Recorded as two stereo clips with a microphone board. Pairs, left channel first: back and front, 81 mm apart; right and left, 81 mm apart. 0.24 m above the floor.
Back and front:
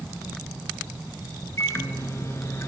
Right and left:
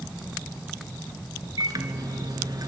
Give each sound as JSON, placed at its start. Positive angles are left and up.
{"t": 1.6, "sound": "a microwave", "azimuth_deg": 125, "distance_m": 2.5}